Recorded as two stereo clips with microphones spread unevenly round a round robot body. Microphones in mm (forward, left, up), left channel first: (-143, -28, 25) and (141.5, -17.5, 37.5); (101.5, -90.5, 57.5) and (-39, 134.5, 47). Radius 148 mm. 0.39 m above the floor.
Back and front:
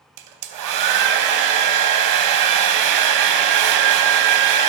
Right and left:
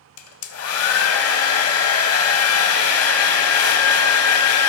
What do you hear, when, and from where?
0.2 s a hair dryer: 20° right, 0.7 m